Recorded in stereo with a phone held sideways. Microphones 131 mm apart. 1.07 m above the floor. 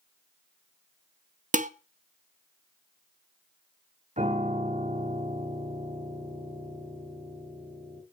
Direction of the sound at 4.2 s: 65° right (ahead or behind).